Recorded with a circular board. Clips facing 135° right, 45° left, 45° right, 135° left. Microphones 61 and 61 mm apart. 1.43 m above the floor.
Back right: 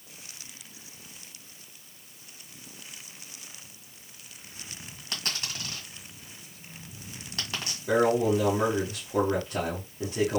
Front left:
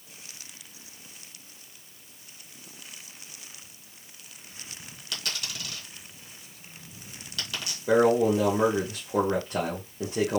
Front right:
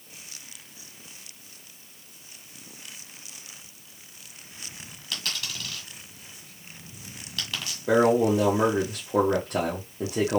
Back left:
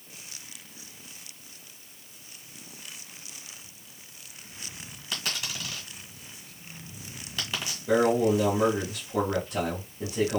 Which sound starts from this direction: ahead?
A man speaking, at 7.9 s.